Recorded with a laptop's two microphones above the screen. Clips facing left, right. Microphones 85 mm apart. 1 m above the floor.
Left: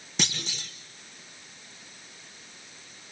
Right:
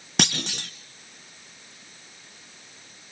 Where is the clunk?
65° right (ahead or behind), 1.5 m.